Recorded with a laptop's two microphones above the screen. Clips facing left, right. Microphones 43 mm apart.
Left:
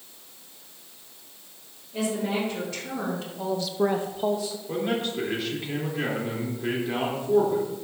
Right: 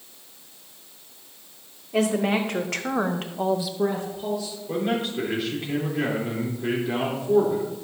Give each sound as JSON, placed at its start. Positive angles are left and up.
{"t": 1.9, "sound": "a woman speaking", "side_deg": -75, "distance_m": 1.8}
{"t": 4.7, "sound": "a man speaking", "side_deg": 0, "distance_m": 3.0}